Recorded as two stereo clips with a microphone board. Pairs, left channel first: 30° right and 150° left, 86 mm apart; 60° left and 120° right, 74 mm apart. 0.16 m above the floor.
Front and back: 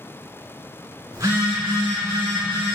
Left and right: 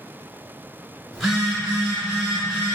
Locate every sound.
1.1 s a phone buzzing: 150° left, 1.7 m